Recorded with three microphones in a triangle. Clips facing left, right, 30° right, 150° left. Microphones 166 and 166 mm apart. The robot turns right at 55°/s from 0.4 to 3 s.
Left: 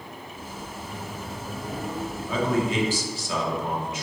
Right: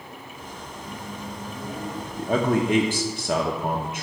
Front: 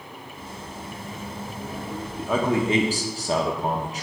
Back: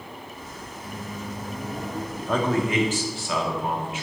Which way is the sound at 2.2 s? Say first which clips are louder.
Right 3 dB, front 1 dB; 120° right.